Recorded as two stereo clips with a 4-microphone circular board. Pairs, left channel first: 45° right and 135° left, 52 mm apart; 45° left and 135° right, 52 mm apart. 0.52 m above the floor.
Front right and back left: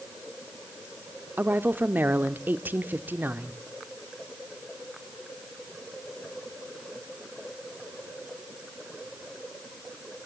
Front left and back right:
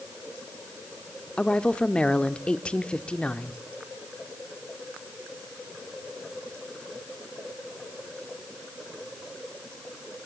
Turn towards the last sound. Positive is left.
turn(degrees=105)